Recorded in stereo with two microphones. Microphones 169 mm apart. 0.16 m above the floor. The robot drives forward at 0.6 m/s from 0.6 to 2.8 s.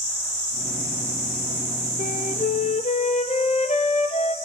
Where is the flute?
55° left (ahead or behind), 1.7 m; by 4.3 s 45° left (ahead or behind), 2.0 m.